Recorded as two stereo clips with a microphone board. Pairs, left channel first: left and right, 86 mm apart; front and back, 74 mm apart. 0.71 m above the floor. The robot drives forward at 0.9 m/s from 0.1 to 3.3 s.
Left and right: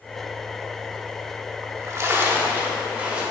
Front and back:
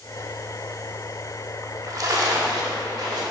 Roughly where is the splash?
Behind right.